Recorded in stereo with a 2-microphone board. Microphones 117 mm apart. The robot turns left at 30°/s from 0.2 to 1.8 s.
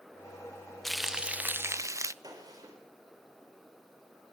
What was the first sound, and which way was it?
Frying, 5° left (ahead or behind).